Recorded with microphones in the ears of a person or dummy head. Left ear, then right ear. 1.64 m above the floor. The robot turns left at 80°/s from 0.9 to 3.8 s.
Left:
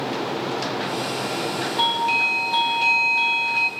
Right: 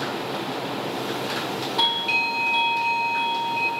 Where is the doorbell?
165° right, 0.6 m; by 3.7 s 45° left, 0.6 m.